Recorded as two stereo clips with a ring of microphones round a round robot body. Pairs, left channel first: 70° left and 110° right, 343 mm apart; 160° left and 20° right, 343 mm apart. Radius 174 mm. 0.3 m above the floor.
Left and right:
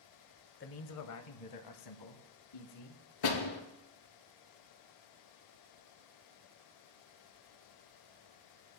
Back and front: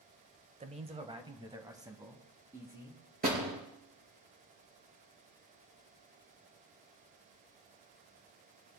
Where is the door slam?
45° left, 4 m.